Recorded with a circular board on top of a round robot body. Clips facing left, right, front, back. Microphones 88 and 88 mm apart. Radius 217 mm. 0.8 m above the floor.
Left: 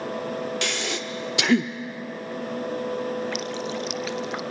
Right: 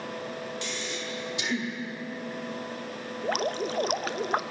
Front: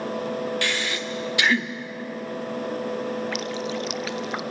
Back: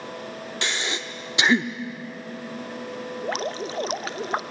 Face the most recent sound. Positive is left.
turn(degrees=-130)